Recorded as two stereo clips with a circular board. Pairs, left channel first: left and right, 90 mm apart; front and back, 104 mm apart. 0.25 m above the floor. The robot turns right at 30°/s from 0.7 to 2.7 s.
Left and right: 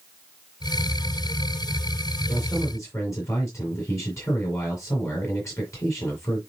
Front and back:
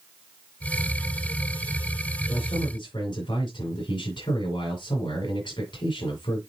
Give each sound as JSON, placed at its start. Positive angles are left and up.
{"t": 2.3, "sound": "a man speaking", "azimuth_deg": 25, "distance_m": 6.0}